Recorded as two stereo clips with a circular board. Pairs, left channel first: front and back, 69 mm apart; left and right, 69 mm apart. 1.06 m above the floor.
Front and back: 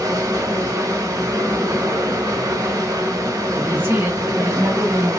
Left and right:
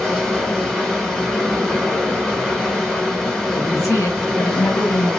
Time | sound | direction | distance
0.0 | running water | 175° left | 1.1 m
3.5 | a woman speaking | 125° left | 1.2 m